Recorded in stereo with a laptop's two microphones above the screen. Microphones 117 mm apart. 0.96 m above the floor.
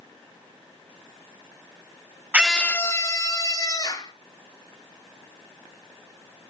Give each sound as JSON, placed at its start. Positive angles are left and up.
{"t": 2.3, "sound": "a scream", "side_deg": -15, "distance_m": 0.5}